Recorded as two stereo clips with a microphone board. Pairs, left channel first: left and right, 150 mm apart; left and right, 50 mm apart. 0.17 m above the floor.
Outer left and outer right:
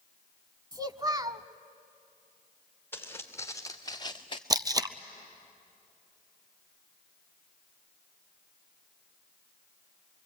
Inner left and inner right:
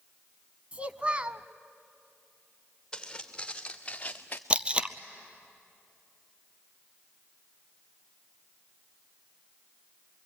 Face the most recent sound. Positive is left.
turn(degrees=-25)  # may be behind; listen again after turning